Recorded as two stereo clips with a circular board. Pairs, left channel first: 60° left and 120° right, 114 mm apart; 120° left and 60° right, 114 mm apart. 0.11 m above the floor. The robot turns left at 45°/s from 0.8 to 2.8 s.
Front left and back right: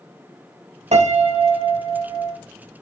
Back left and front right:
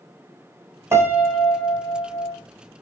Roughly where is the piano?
Behind right.